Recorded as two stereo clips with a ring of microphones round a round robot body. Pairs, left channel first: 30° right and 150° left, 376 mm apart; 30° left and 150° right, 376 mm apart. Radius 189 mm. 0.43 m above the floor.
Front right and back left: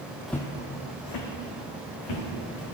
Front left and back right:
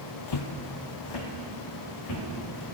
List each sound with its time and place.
0.3 s footsteps: 60° left, 0.7 m; by 2.6 s 15° right, 3 m